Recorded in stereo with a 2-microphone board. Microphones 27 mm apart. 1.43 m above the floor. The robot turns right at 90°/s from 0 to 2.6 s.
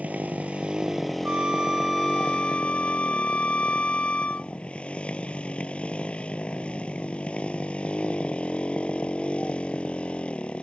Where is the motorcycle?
105° right; by 10.6 s 130° left.